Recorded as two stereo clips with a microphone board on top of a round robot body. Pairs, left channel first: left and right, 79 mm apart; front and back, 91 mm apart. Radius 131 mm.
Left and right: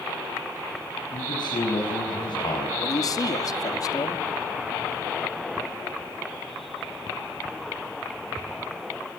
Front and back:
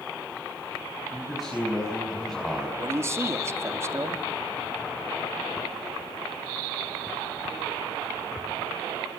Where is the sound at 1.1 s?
95° left, 5 m.